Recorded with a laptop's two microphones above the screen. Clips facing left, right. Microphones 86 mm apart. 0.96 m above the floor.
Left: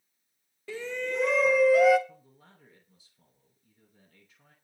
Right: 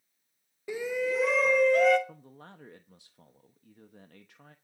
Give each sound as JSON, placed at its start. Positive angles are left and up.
{"t": 0.7, "sound": "a shout", "side_deg": -15, "distance_m": 0.7}
{"t": 2.1, "sound": "a man speaking", "side_deg": -70, "distance_m": 1.0}